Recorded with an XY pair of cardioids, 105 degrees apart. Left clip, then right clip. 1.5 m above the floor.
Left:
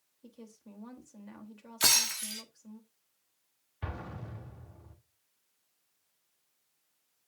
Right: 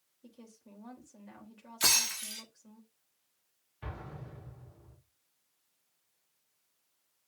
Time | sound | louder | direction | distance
0.2 | a woman speaking | left 3 dB | 10° left | 3.5 m
1.8 | breaking glass | left 1 dB | 15° left | 2 m
3.8 | an explosion | left 3 dB | 40° left | 3 m